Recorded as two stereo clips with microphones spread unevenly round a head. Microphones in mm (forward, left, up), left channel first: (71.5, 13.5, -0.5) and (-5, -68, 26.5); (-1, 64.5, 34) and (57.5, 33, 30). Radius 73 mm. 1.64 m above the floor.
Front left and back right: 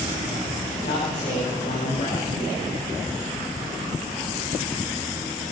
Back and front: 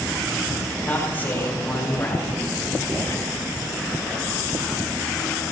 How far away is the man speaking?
About 5 m.